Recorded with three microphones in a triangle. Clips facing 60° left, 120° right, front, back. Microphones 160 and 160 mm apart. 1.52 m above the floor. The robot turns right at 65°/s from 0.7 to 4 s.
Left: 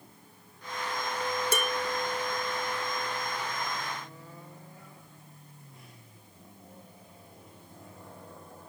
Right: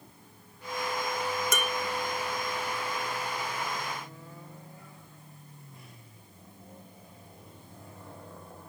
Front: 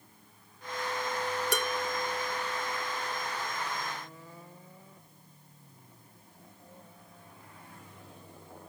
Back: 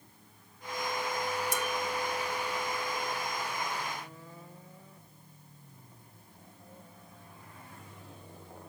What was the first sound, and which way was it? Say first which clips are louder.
Dishes clattering: left 2 dB, front 2 dB; straight ahead.